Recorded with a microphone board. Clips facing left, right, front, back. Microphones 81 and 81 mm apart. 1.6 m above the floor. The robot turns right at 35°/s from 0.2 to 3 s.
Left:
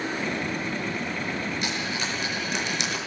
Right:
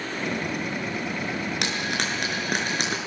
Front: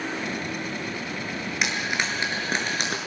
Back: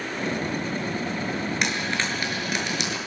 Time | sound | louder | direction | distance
1.6 | frying | right 2 dB, even | 90° right | 6.5 m